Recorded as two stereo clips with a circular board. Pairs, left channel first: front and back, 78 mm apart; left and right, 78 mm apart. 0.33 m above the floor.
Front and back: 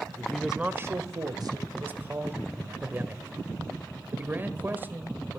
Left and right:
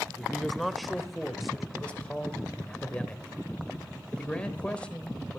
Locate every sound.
0.2 s a man speaking: 5° left, 0.8 m; by 1.6 s 175° right, 1.6 m
1.7 s a man speaking: 150° left, 1.5 m